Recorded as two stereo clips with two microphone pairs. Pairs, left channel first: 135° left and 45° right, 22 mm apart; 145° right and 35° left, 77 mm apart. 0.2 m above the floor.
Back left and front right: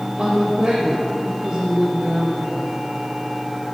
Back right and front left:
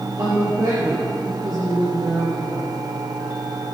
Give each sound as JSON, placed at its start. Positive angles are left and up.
{"t": 0.2, "sound": "a woman speaking", "azimuth_deg": 0, "distance_m": 3.0}